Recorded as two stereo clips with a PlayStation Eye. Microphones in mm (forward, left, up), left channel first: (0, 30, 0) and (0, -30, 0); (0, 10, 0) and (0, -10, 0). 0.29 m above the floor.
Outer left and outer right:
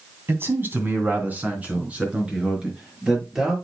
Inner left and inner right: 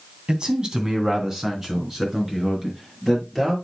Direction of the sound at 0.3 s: 45° right (ahead or behind).